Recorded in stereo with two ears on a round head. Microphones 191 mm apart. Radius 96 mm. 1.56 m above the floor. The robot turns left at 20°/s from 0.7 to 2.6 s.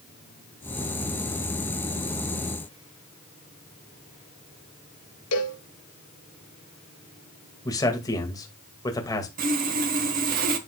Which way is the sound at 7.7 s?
15° left (ahead or behind).